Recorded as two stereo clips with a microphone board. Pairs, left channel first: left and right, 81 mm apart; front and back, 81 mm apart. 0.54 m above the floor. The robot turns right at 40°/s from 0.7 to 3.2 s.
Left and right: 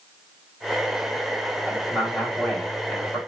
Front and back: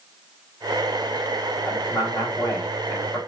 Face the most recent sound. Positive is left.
turn(degrees=40)